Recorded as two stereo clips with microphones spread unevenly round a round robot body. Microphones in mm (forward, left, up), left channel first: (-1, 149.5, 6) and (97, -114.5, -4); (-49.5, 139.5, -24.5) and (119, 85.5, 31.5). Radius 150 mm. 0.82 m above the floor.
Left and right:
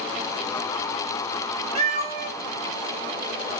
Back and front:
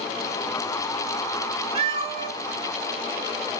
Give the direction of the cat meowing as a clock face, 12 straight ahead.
12 o'clock.